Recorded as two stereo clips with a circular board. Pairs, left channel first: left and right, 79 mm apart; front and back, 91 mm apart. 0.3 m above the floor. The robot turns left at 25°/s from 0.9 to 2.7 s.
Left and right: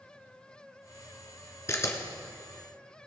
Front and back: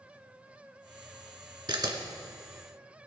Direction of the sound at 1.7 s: 145° left.